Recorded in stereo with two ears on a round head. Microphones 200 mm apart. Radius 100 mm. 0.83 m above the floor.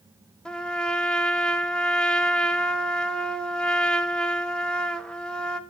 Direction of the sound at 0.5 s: 5° left (ahead or behind).